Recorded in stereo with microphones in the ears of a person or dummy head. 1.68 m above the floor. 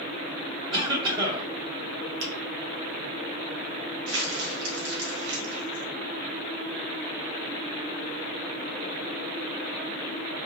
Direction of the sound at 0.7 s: 25° right (ahead or behind).